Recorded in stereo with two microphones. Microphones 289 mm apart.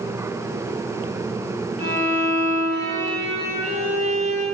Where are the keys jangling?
I don't hear keys jangling.